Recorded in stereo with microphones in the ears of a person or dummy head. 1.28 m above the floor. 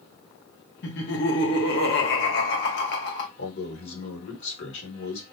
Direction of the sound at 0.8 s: 55° left (ahead or behind).